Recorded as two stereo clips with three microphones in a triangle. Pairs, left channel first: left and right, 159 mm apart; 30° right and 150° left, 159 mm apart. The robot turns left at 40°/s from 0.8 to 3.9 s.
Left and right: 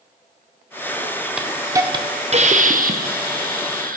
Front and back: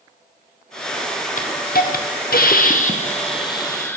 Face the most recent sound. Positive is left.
turn(degrees=-105)